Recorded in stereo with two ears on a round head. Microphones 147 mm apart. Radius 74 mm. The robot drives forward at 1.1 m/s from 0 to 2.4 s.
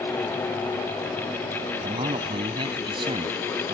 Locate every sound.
1.8 s a man speaking: 30° right (ahead or behind)